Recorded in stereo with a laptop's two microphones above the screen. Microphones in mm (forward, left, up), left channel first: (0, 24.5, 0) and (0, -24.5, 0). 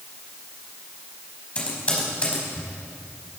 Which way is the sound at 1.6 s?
25° left (ahead or behind).